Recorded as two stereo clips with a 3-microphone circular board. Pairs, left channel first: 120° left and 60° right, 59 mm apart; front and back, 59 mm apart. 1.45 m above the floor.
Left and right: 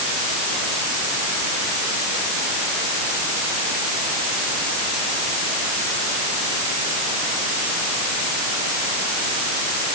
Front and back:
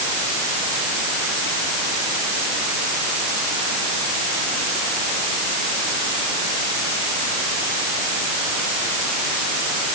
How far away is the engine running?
I don't hear an engine running.